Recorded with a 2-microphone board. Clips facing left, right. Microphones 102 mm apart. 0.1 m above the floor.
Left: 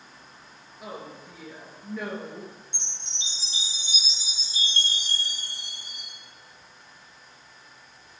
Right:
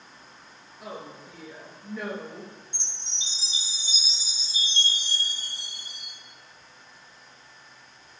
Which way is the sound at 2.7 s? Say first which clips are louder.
Left 1 dB; 70° left (ahead or behind).